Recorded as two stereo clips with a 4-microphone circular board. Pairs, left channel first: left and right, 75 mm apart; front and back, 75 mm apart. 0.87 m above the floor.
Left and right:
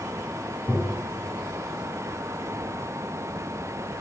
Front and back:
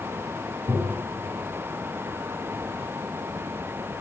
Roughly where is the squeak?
I don't hear a squeak.